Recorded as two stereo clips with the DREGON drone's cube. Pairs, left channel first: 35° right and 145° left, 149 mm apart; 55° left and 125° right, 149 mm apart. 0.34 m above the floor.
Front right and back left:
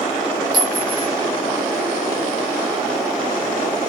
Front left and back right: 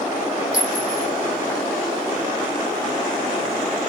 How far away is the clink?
About 1.2 m.